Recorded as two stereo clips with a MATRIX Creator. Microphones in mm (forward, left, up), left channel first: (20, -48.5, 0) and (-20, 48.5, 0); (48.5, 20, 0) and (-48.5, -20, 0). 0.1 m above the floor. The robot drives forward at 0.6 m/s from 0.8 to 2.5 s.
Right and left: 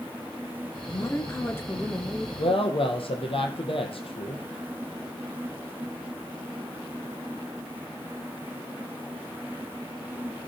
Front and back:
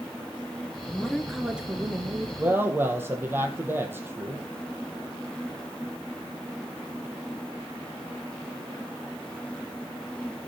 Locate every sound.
0.9 s a woman speaking: 45° right, 1.2 m; by 2.3 s 135° right, 1.2 m
2.4 s a woman speaking: 90° right, 3 m